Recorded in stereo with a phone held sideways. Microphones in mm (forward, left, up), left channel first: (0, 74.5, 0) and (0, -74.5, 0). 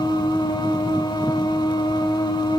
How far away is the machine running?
About 0.9 m.